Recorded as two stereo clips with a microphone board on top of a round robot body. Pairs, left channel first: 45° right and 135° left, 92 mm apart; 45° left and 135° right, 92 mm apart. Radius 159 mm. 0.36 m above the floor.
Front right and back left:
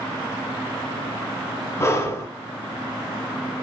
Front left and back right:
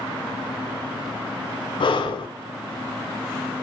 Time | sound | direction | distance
1.8 | breathing | 15° left | 0.8 m